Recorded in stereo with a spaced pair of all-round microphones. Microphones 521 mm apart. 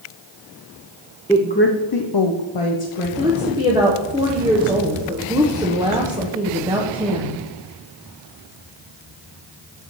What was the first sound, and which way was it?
A woman speaking, 5° left (ahead or behind).